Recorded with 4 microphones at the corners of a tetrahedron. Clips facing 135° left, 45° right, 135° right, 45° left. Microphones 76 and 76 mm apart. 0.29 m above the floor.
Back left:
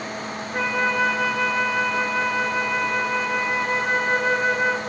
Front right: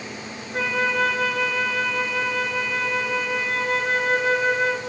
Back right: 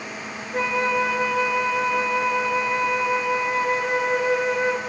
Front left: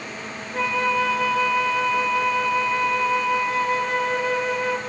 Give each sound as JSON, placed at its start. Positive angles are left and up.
{"t": 0.5, "sound": "a flute", "azimuth_deg": -150, "distance_m": 1.2}